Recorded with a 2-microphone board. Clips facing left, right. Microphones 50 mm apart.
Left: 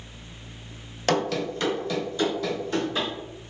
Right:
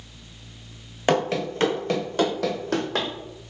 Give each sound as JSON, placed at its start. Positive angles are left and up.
{"t": 1.1, "sound": "running footsteps", "side_deg": -15, "distance_m": 0.6}